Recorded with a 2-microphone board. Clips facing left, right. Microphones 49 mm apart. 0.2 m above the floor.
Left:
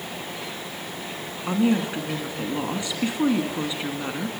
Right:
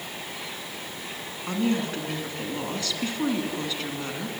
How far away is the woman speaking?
About 2.5 m.